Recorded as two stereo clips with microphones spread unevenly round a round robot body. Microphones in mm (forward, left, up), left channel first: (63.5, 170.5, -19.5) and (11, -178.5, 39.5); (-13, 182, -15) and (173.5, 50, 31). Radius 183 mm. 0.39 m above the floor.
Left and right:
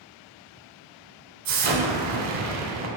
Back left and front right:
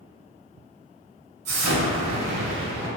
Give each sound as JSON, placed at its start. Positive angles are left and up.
{"t": 1.4, "sound": "an explosion", "azimuth_deg": -55, "distance_m": 0.5}